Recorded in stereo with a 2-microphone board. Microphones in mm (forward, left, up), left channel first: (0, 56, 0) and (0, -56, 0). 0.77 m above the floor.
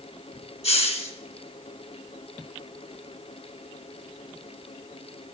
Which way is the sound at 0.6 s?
65° left (ahead or behind).